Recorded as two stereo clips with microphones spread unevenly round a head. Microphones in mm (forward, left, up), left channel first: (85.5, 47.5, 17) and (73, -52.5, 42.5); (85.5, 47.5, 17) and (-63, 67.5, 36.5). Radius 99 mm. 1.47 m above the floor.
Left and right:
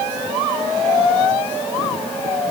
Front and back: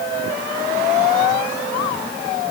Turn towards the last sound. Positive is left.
No sound to turn to.